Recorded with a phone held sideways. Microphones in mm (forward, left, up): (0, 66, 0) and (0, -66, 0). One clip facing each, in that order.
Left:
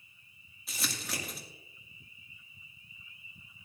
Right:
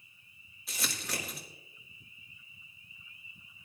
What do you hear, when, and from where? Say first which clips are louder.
0.7 s crumpling: even; centre (ahead or behind), 2 m